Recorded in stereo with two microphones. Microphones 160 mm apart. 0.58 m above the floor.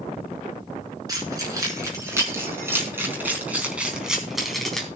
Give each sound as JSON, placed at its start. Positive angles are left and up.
{"t": 1.1, "sound": "keys jangling", "side_deg": -25, "distance_m": 5.5}